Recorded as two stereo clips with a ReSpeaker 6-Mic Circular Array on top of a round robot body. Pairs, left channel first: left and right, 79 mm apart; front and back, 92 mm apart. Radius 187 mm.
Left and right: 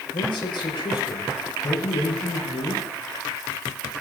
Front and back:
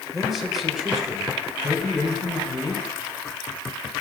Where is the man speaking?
90° left, 6 m.